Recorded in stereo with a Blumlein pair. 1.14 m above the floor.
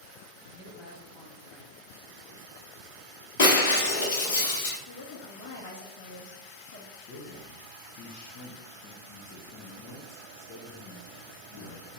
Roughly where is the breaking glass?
Ahead left.